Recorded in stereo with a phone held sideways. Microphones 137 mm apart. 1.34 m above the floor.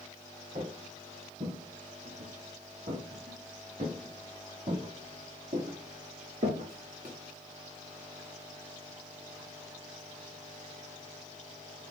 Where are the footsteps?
70° right (ahead or behind), 4 m; by 7.1 s 65° right (ahead or behind), 8 m.